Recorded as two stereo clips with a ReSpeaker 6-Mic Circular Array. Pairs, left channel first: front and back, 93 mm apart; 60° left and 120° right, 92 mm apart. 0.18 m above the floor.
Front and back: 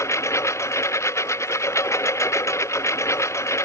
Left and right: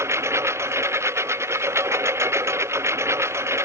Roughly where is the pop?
I don't hear a pop.